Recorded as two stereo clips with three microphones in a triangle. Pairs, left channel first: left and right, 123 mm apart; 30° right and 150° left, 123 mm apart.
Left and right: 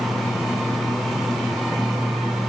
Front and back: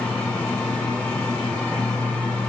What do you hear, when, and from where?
Only background noise.